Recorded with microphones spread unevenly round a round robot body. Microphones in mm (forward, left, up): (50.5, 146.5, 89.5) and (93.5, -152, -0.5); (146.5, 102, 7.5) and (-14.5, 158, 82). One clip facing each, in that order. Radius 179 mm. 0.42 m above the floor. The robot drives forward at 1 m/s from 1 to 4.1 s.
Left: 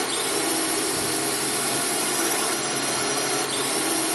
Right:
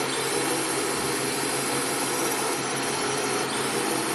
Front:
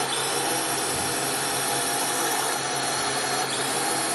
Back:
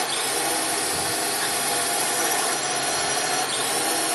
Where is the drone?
55° left; by 4.2 s 80° left.